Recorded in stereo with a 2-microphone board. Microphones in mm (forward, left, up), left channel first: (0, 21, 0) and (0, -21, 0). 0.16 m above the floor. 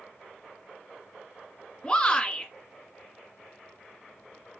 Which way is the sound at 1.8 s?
20° left (ahead or behind).